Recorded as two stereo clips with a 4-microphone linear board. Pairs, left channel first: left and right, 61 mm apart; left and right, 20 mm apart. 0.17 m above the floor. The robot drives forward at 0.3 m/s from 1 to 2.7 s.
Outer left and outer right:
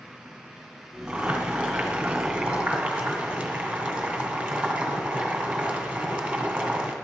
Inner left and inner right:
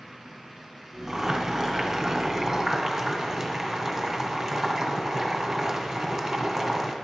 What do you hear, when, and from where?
1.1 s boiling: 15° right (ahead or behind), 1.6 m; by 6.9 s 20° right (ahead or behind), 1.5 m